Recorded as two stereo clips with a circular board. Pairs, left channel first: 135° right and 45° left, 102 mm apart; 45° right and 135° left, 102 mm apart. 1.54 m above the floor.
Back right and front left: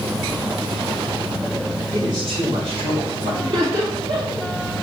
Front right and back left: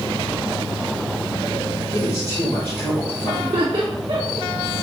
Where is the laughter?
80° left, 2 m.